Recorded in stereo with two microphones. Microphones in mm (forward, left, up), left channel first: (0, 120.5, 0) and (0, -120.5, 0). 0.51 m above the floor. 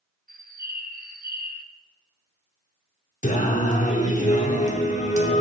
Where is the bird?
35° right (ahead or behind), 0.6 m.